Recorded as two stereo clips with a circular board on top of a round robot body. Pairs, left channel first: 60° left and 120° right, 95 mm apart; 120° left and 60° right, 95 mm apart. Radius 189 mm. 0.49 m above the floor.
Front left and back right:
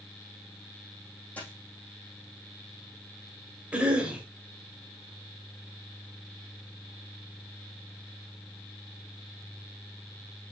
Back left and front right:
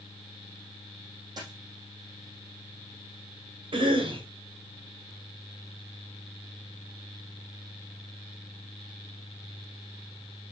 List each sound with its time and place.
1.4 s a dropped coin: 15° right, 3.5 m
3.7 s a cough: 45° right, 3.5 m